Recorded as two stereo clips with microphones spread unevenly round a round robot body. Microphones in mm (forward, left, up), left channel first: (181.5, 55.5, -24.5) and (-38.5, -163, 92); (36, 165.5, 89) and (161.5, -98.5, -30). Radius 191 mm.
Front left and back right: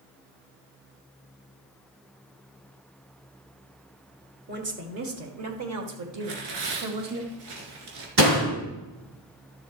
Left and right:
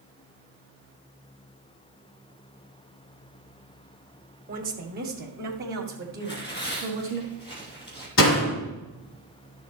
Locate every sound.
4.5 s a woman speaking: 65° right, 1.8 m; by 7.2 s 110° right, 3 m
6.2 s tearing paper: 165° right, 2.5 m
8.2 s a door slam: 165° left, 5 m